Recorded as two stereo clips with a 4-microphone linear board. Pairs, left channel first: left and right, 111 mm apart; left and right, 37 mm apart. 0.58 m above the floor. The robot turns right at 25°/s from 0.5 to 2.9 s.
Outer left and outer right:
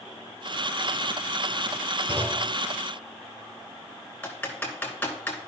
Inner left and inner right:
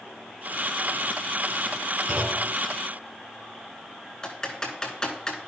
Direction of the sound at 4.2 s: 15° left (ahead or behind).